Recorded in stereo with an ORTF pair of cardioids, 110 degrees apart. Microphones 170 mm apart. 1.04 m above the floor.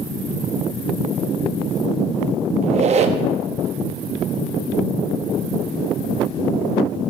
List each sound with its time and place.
2.6 s a squeak: 40° right, 0.8 m